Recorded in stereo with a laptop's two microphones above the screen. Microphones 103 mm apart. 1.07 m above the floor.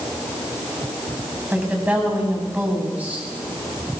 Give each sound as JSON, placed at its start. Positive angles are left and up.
{"t": 1.5, "sound": "a woman speaking", "side_deg": -15, "distance_m": 8.0}